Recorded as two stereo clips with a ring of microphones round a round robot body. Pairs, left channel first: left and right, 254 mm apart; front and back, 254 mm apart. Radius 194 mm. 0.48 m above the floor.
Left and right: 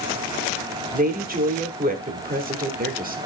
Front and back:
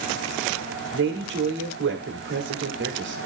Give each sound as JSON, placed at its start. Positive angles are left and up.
{"t": 0.9, "sound": "a woman speaking", "azimuth_deg": -145, "distance_m": 1.3}